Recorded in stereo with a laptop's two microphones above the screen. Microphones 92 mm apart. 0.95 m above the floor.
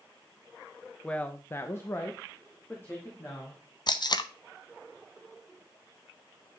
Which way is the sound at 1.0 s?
10° left (ahead or behind).